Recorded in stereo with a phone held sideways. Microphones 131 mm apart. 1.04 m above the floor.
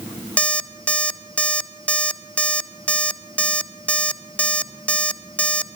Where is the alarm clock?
10° left (ahead or behind), 0.7 m.